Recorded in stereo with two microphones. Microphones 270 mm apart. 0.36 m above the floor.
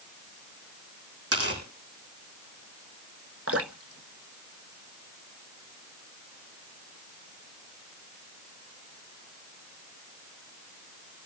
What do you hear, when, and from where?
1.3 s tearing paper: 60° right (ahead or behind), 9 m
3.5 s dripping: 55° right (ahead or behind), 0.9 m